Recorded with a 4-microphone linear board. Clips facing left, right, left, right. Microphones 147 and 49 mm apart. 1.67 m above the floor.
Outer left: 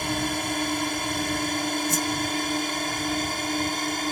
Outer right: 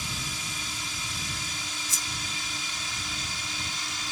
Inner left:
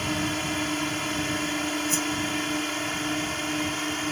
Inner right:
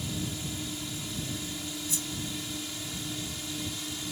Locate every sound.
0.0 s a drone: 60° left (ahead or behind); by 4.1 s 55° left (ahead or behind)
1.9 s a whoosh: 60° left (ahead or behind)